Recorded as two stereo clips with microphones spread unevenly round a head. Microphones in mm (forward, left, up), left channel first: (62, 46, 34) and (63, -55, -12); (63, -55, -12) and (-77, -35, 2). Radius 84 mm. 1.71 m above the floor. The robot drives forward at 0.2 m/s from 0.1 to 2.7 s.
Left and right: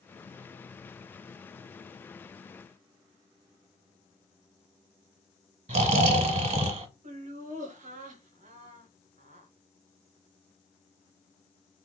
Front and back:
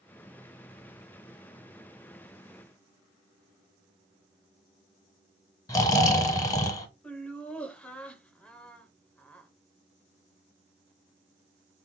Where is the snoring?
75° right, 0.7 m.